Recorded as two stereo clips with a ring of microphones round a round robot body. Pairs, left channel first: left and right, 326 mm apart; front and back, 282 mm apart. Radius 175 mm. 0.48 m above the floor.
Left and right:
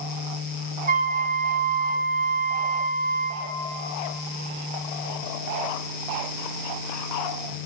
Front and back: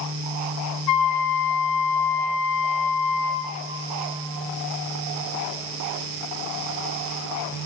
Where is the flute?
25° right, 0.7 m.